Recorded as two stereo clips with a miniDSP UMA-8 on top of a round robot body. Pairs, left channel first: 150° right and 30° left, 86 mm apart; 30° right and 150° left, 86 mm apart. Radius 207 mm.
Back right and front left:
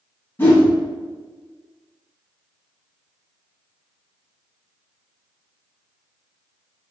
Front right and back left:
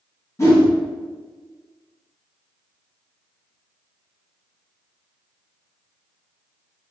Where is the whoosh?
85° right, 1.6 m.